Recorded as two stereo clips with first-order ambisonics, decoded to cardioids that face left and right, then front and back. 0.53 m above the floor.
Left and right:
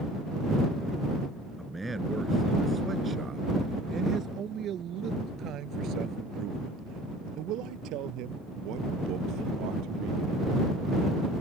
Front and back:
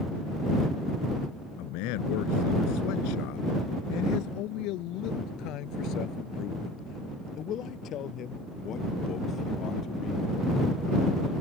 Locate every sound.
1.6 s a man speaking: 5° right; by 10.4 s 60° right